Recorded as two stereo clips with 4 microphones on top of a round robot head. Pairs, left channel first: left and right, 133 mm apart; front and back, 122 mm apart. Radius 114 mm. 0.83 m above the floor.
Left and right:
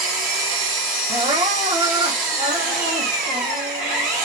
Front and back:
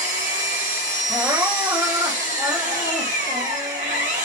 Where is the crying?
120° right, 0.8 m.